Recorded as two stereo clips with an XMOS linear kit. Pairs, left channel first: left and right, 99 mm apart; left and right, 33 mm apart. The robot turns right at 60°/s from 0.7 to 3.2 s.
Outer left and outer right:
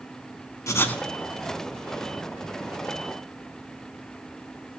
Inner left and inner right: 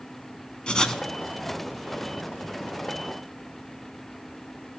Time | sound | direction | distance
0.7 | writing | 30° left (ahead or behind) | 0.7 m